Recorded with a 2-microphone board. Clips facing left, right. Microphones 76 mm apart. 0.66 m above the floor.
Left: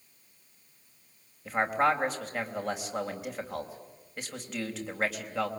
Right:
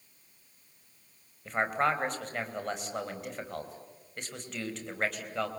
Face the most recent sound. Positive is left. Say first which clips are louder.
# left 2 dB
turn(degrees=5)  # may be behind; listen again after turning